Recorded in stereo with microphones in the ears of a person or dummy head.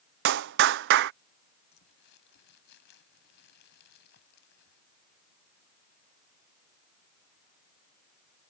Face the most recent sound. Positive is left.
turn(degrees=60)  # may be behind; listen again after turning